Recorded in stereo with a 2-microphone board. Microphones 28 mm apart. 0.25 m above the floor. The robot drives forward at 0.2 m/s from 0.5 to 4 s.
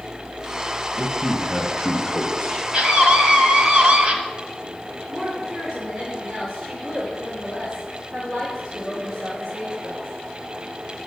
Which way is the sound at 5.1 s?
5° right (ahead or behind).